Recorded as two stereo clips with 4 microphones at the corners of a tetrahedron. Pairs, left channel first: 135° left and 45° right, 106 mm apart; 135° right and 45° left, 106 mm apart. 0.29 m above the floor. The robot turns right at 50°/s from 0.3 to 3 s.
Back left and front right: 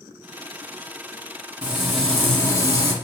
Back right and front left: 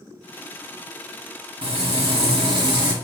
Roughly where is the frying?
Ahead left.